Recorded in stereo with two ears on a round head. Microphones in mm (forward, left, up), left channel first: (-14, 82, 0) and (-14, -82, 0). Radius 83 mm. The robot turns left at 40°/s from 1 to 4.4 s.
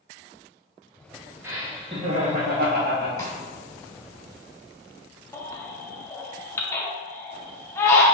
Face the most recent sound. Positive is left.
turn(degrees=15)  # may be behind; listen again after turning